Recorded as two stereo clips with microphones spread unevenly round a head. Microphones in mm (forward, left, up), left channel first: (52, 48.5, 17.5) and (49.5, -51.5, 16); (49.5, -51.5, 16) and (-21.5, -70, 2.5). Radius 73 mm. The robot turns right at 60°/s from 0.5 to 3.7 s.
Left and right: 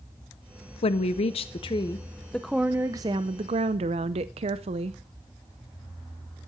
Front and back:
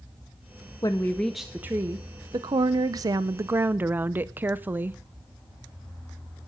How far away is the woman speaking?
About 0.5 m.